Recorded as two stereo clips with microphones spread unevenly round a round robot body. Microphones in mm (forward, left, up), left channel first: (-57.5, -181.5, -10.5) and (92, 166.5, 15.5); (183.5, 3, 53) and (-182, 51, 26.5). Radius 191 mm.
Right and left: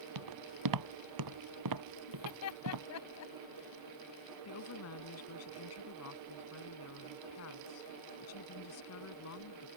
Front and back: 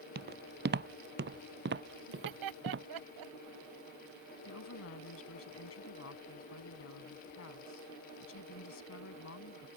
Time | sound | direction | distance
0.1 | footsteps | 105° left | ?
2.1 | laughter | 160° right | ?
4.5 | a woman speaking | 65° right | ?